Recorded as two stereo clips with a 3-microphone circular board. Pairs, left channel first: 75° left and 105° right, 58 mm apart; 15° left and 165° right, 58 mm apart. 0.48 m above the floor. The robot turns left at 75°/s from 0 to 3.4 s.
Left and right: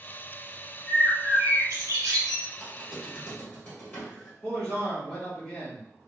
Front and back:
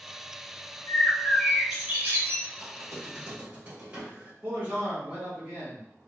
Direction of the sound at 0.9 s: 25° right.